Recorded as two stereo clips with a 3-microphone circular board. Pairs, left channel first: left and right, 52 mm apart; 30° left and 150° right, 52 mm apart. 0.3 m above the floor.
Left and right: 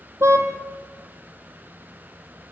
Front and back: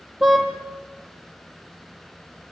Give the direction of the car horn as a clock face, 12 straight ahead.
2 o'clock.